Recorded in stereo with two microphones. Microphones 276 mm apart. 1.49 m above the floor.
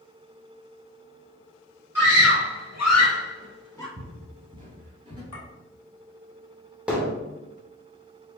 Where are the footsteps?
40° right (ahead or behind), 1.9 m; by 5.2 s 15° right (ahead or behind), 1.5 m.